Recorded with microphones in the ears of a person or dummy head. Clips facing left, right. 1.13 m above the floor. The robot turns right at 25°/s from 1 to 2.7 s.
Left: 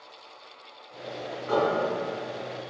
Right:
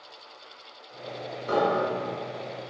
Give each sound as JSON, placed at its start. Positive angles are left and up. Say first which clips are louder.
{"t": 1.5, "sound": "a piano", "louder": "even", "side_deg": -40, "distance_m": 0.8}